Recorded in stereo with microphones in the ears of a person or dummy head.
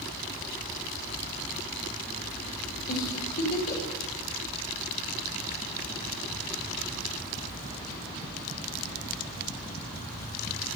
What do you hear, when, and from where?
2.9 s a giggle: 55° left (ahead or behind), 2.5 m